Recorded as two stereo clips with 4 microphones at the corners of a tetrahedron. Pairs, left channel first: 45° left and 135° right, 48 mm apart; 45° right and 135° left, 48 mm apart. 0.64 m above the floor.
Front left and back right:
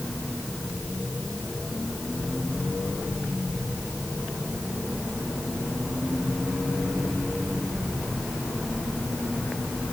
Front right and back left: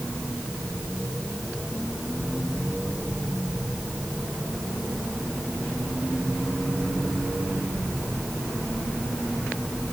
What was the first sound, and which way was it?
Only background noise.